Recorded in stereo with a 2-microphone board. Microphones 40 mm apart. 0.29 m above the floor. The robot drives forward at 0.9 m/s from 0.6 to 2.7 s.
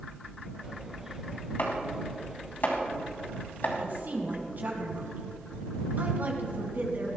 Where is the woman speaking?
50° right (ahead or behind), 3 m.